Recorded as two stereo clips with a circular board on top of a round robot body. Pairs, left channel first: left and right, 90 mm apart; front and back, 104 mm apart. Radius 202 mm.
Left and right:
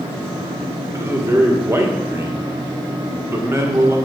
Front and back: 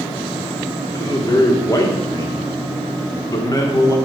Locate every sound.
0.9 s a man speaking: 40° right, 1.6 m